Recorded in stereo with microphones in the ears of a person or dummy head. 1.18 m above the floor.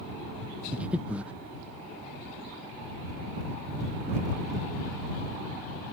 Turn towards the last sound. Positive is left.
turn(degrees=-10)  # may be behind; listen again after turning